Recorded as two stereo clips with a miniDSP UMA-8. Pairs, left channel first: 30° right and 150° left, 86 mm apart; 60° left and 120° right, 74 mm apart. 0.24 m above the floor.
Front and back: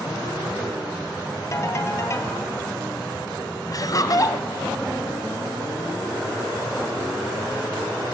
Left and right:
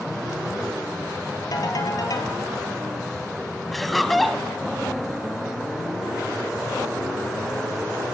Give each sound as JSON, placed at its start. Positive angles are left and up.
{"t": 1.5, "sound": "a ringtone", "azimuth_deg": 25, "distance_m": 2.5}
{"t": 3.7, "sound": "laughter", "azimuth_deg": -30, "distance_m": 1.6}